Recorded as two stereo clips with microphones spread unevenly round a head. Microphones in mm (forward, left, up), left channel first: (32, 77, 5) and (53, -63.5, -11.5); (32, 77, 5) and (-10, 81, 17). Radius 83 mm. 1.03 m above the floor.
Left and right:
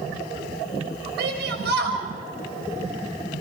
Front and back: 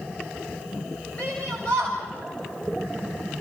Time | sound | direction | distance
1.2 | a shout | 80° right | 6 m